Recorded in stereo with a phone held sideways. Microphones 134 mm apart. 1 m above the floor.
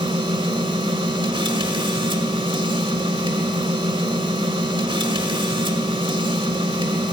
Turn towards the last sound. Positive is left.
turn(degrees=-40)  # may be behind; listen again after turning